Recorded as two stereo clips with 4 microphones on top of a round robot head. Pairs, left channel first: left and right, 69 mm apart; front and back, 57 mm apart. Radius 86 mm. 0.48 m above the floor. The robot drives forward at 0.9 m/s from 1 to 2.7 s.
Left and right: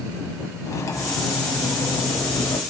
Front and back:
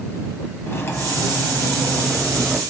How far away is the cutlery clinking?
About 2 m.